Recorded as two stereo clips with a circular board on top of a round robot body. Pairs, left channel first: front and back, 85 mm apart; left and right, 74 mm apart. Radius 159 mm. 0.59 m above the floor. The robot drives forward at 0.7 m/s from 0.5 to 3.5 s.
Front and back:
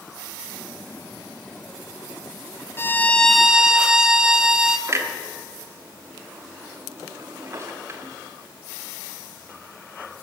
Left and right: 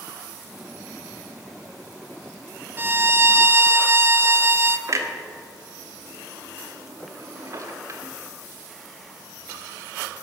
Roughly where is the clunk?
Behind right.